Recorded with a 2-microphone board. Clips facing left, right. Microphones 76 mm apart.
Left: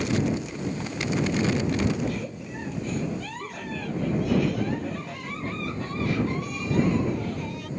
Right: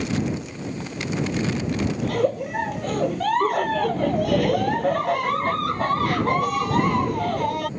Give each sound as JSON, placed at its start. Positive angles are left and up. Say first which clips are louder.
{"t": 2.0, "sound": "a giggle", "louder": "right 9 dB", "side_deg": -70}